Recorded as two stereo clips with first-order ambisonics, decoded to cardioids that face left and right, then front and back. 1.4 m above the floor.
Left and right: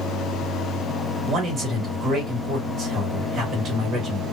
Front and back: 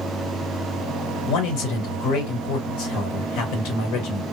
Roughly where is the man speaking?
Ahead right.